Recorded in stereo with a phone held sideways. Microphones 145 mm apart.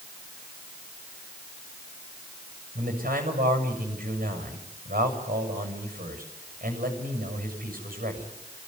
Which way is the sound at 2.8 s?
80° right.